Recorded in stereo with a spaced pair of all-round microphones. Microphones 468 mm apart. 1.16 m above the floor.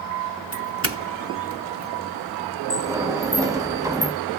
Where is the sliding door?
5° right (ahead or behind), 1.0 m.